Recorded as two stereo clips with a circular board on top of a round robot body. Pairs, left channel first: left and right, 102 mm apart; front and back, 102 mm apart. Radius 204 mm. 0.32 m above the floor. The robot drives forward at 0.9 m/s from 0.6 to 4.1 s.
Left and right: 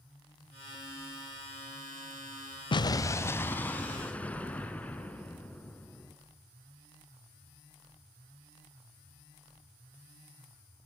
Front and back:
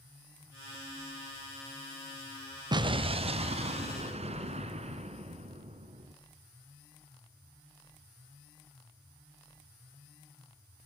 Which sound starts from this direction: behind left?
An explosion, at 2.7 s.